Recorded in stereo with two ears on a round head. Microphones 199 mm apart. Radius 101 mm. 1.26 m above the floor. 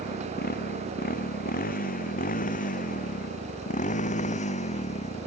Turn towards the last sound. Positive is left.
turn(degrees=30)  # may be behind; listen again after turning